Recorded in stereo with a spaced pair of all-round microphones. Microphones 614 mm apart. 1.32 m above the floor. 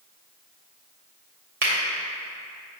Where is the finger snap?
85° right, 1.4 m.